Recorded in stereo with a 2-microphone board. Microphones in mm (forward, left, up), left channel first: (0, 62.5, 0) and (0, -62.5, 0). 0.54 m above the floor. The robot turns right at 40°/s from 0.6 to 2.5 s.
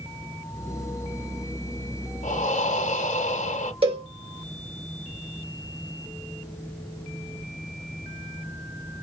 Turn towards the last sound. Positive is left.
turn(degrees=-45)  # may be behind; listen again after turning